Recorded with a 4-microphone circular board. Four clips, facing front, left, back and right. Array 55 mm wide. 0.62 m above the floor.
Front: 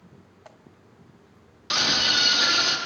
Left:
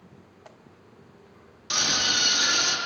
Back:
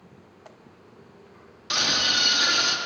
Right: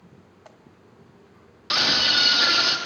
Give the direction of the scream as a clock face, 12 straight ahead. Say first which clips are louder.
Right 4 dB, front 1 dB; 3 o'clock.